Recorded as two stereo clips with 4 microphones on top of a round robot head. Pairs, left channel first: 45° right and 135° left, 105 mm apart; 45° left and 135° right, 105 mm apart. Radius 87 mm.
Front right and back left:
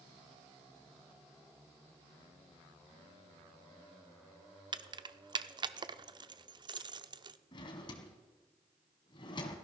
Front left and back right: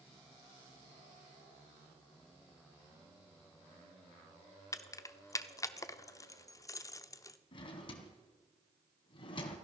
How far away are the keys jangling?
About 0.7 m.